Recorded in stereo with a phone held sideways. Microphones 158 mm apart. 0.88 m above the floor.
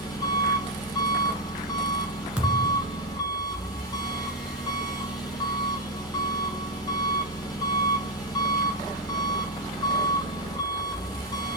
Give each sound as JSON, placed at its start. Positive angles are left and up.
{"t": 0.0, "sound": "an engine running", "side_deg": 25, "distance_m": 3.0}
{"t": 2.4, "sound": "a thud", "side_deg": -5, "distance_m": 1.7}